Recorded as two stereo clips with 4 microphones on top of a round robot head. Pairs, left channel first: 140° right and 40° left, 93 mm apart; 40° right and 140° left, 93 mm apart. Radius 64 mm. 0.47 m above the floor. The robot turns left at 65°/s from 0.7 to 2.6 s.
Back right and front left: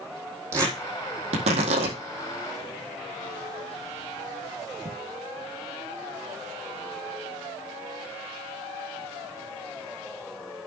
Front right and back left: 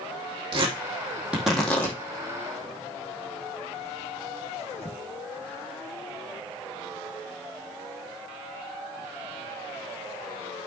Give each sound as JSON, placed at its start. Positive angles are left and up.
{"t": 0.5, "sound": "tearing paper", "azimuth_deg": 100, "distance_m": 4.0}